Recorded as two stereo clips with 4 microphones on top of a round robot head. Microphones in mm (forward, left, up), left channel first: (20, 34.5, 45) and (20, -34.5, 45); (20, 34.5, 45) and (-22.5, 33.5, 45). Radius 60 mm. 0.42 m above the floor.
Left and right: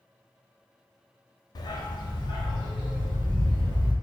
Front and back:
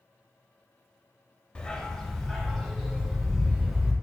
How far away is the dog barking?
About 0.7 m.